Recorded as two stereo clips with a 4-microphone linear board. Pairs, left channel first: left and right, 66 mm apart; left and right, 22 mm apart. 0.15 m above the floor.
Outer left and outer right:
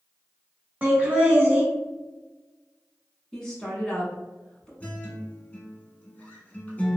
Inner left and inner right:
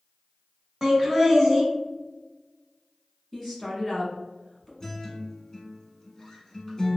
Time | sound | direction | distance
0.8 | laughter | 25° right (ahead or behind) | 1.0 m
3.3 | a woman speaking | 10° left (ahead or behind) | 1.1 m
4.8 | a guitar | 25° left (ahead or behind) | 0.7 m